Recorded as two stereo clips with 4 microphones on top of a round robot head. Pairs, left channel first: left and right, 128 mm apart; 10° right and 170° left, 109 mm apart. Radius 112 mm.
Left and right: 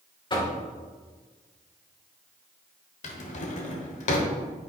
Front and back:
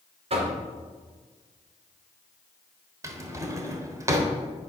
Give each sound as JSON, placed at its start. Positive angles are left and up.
{"t": 0.3, "sound": "knocking", "azimuth_deg": 145, "distance_m": 2.0}
{"t": 3.0, "sound": "a drawer", "azimuth_deg": 110, "distance_m": 1.1}